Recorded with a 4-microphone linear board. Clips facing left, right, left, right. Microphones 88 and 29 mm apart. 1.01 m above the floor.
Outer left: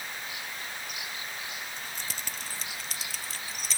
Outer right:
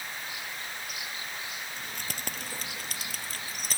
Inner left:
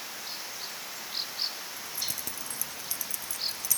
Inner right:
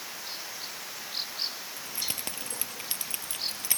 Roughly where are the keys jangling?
Right.